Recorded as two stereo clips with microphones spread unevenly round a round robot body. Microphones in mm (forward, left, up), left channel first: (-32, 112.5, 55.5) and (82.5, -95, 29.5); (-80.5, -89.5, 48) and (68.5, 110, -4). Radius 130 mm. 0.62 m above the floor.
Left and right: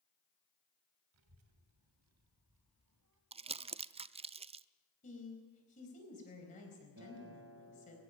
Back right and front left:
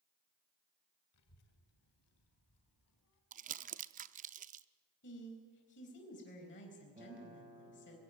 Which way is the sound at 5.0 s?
Straight behind.